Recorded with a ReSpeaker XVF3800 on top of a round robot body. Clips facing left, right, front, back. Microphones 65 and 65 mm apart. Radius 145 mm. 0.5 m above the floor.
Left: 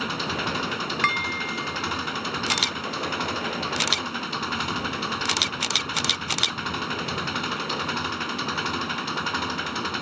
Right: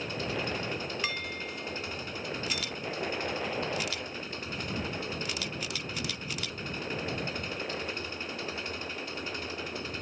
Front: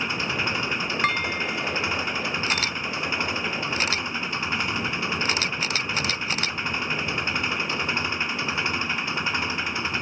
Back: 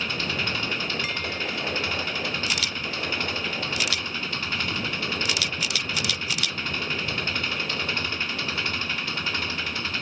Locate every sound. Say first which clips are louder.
0.0 s an engine running: left 6 dB, front 2 dB; 75° left
1.0 s dishes clattering: left 11 dB, front 5 dB; 45° left
2.5 s a camera shutter: left 8 dB, front 3 dB; 60° left